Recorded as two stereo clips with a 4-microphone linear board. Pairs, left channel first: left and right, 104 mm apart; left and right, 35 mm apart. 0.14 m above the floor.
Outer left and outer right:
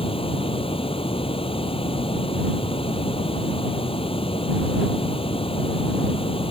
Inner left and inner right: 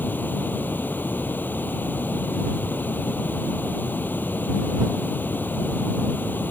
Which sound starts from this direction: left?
Running water, at 0.0 s.